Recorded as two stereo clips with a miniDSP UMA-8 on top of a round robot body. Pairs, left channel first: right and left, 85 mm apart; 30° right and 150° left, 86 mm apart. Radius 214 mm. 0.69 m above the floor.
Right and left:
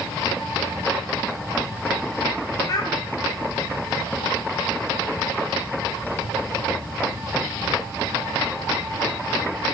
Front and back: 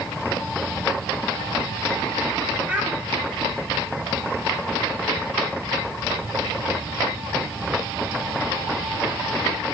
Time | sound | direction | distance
2.7 | a child speaking | 135° right | 0.5 m